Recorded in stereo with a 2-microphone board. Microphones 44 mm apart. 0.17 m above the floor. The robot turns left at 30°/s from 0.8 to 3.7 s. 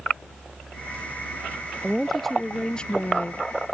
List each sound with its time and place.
1.8 s a woman speaking: 175° right; by 3.7 s 130° left